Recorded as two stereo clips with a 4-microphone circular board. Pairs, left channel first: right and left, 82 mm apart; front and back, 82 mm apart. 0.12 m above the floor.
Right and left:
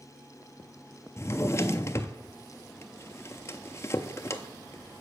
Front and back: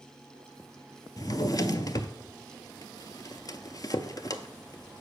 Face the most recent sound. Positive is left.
turn(degrees=-40)